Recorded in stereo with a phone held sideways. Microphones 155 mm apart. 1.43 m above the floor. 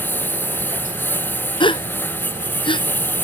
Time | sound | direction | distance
0.0 | a lawn mower | 15° left (ahead or behind) | ?
1.6 | a gasp | 30° left (ahead or behind) | ?